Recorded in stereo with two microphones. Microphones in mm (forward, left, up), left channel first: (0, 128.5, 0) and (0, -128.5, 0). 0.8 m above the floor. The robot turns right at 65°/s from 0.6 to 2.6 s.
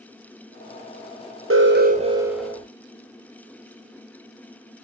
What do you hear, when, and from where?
1.5 s an alarm: 60° right, 0.6 m; by 2.6 s 10° left, 0.6 m